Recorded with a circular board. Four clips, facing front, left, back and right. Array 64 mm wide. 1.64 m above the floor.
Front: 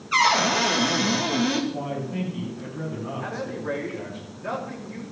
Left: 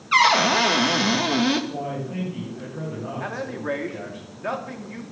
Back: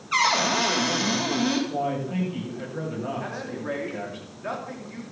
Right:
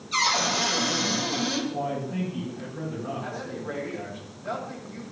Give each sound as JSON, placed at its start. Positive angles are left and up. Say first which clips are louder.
{"t": 0.1, "sound": "a cupboard door", "louder": "left 8 dB, front 2 dB", "azimuth_deg": 90, "distance_m": 2.0}
{"t": 1.7, "sound": "a man speaking", "louder": "even, back 3 dB", "azimuth_deg": 165, "distance_m": 10.0}
{"t": 3.2, "sound": "a man speaking", "louder": "left 4 dB, front 2 dB", "azimuth_deg": 100, "distance_m": 3.5}